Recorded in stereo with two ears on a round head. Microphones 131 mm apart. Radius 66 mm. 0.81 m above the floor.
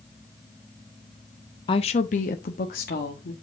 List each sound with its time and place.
1.7 s a woman speaking: 30° left (ahead or behind), 0.6 m; by 3.3 s 75° left (ahead or behind), 1.5 m